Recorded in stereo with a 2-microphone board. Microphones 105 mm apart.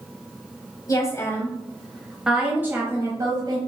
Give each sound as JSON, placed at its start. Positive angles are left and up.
{"t": 0.9, "sound": "a woman speaking", "side_deg": 35, "distance_m": 1.2}